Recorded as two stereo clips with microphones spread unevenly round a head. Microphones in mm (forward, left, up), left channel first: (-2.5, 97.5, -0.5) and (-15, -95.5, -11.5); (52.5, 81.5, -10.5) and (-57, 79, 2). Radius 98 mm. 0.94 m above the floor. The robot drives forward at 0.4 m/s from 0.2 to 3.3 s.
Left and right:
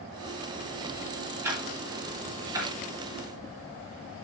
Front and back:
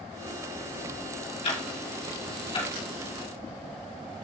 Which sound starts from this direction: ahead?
Ticking, at 1.4 s.